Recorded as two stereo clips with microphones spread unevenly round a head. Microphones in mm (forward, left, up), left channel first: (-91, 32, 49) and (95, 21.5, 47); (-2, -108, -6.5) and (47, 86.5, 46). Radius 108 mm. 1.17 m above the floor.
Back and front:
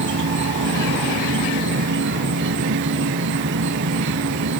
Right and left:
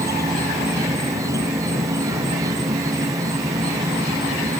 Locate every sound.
0.0 s an insect: 5° right, 0.7 m